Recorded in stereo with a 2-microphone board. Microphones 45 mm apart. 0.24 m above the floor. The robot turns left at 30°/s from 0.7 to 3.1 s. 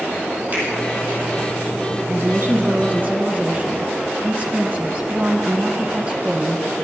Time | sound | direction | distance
0.5 | a finger snap | 35° right (ahead or behind) | 6 m
2.1 | a woman speaking | 110° right | 1.9 m